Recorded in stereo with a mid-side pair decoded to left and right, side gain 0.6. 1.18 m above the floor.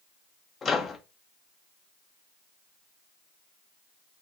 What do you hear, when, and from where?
0.6 s a microwave: 35° left, 1.1 m